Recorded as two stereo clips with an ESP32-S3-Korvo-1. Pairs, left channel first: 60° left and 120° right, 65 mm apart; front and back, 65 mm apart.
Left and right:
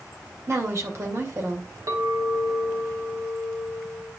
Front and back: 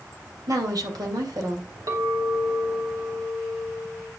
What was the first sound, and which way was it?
A woman speaking, 165° right.